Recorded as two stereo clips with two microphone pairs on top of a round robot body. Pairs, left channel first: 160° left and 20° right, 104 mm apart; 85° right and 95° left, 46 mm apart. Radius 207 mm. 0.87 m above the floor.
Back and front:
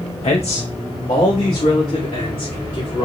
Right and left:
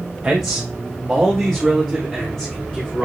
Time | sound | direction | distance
0.2 | a man speaking | 165° left | 1.1 m